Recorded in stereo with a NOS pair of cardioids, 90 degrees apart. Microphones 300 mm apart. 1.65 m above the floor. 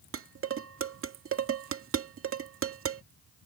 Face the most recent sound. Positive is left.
turn(degrees=-50)